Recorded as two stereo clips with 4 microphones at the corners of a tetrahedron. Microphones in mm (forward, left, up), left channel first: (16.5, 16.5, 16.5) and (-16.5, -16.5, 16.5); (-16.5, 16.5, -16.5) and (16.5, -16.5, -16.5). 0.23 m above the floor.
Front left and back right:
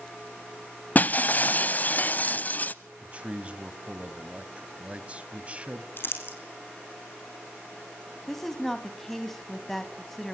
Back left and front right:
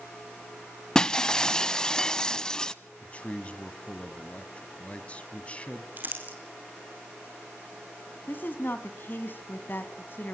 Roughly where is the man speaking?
Behind.